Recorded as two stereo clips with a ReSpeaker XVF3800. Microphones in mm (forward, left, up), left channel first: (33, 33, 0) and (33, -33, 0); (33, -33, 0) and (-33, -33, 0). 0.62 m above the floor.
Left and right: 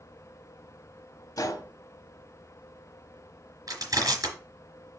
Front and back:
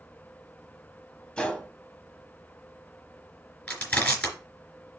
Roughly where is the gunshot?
Left.